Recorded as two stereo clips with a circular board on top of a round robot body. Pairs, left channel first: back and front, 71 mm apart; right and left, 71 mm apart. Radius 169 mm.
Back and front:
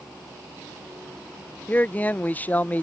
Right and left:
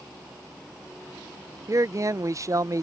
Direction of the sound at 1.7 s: 120° left.